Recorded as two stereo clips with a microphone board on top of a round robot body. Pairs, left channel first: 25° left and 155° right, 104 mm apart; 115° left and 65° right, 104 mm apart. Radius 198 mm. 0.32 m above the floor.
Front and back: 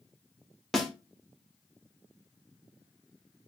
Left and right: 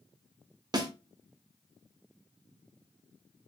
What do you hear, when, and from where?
0.7 s a snare drum: 65° right, 1.1 m